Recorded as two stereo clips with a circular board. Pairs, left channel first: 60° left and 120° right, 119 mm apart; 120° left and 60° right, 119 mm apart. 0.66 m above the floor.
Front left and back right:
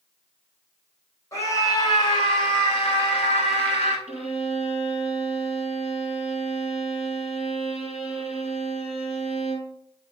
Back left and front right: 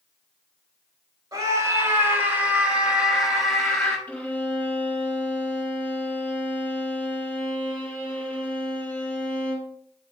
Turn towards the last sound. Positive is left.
turn(degrees=40)